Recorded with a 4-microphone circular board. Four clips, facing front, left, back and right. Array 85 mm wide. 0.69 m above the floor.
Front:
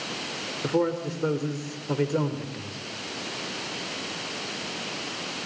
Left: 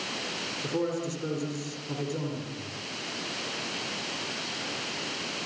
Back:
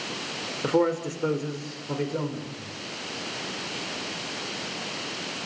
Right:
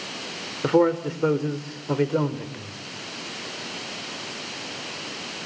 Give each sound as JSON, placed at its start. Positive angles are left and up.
{"t": 0.6, "sound": "a man speaking", "azimuth_deg": -105, "distance_m": 2.5}